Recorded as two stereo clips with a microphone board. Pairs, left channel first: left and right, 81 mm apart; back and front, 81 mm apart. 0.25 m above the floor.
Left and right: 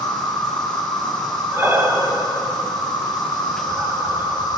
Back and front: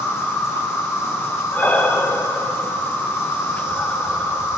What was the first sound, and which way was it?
An insect, 125° left.